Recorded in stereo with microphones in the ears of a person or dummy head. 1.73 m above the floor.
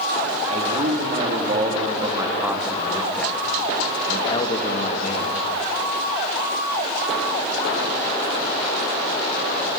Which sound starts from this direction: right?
A man speaking, at 0.5 s.